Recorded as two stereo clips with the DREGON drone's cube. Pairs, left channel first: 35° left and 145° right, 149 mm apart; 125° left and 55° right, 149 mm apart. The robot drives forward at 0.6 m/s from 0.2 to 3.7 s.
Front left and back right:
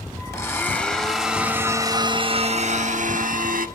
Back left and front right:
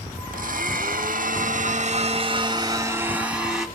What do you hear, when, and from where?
0.3 s a blender: 35° right, 1.4 m; by 3.7 s 140° right, 1.3 m